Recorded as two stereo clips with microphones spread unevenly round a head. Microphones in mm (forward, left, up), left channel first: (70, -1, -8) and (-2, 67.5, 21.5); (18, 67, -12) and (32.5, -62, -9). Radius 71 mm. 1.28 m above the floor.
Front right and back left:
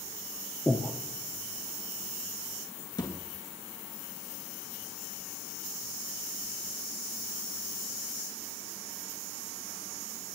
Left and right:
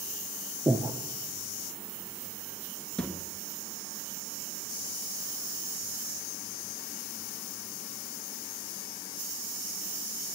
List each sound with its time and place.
0.7 s breathing: 140° right, 0.8 m
3.0 s a thud: 15° left, 2.5 m